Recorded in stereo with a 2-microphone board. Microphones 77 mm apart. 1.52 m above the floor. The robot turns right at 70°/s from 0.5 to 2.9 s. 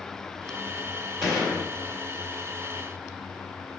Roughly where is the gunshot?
Behind.